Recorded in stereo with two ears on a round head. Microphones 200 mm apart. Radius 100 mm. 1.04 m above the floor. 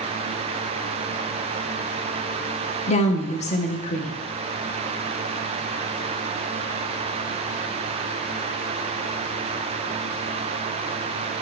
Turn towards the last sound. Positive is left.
turn(degrees=30)  # may be behind; listen again after turning